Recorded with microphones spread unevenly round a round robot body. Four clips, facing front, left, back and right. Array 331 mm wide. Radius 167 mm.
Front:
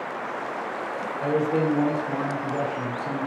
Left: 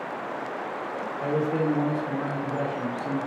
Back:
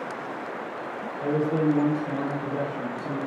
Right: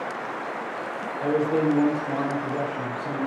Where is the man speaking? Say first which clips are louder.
Right 3 dB, even; 105° right, 1.2 m; by 3.3 s 150° left, 1.4 m.